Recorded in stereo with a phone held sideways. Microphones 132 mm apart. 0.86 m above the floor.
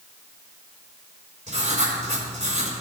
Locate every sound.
1.5 s writing: 65° right (ahead or behind), 3.5 m